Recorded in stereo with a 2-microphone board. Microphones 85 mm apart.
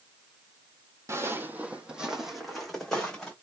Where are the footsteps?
35° right (ahead or behind), 0.8 m; by 3.3 s 10° left (ahead or behind), 1.8 m.